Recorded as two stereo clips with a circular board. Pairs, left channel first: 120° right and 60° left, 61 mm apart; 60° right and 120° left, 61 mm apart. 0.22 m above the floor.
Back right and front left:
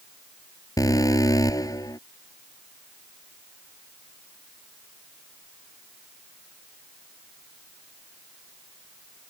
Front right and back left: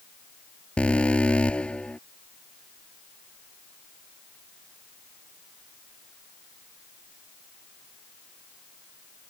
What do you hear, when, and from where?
0.8 s an alarm: 130° right